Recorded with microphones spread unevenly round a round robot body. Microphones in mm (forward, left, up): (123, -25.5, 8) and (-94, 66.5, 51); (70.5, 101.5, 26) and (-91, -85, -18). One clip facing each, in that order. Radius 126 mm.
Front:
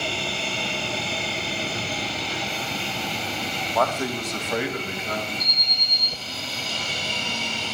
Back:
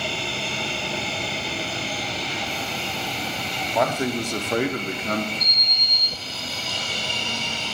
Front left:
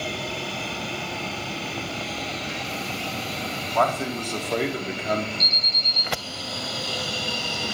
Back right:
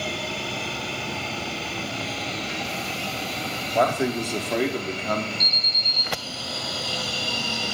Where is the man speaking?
115° right, 0.9 m; by 5.3 s 130° left, 1.1 m.